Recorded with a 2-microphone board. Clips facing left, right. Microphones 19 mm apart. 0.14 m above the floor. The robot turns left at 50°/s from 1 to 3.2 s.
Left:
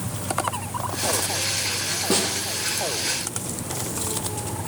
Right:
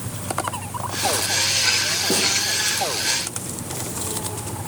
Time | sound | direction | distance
0.0 | an insect | 100° left | 8 m
2.1 | a snare drum | 30° left (ahead or behind) | 8.5 m